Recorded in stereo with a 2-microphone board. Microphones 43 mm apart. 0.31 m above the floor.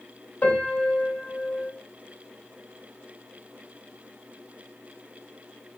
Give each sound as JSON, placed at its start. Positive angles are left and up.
{"t": 0.4, "sound": "a piano", "side_deg": 40, "distance_m": 2.0}